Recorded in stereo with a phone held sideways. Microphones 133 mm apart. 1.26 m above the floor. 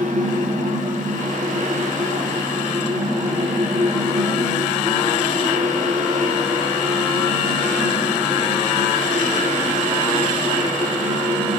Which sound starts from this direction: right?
A fan, at 0.0 s.